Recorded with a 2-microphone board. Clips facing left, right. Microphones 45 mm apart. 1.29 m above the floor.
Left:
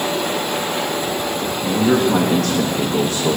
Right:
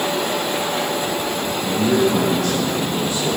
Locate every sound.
1.6 s a man speaking: 35° left (ahead or behind), 1.5 m; by 3.4 s 40° left (ahead or behind), 0.8 m